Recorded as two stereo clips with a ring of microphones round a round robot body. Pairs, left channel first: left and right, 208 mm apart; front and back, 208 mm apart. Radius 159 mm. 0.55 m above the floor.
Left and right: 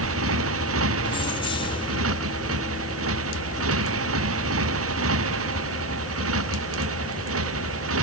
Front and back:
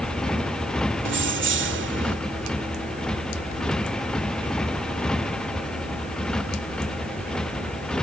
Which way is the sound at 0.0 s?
90° right.